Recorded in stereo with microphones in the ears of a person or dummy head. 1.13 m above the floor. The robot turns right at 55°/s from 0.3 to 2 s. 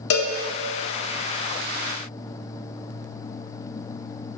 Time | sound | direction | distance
0.1 | a cowbell | 80° left | 1.0 m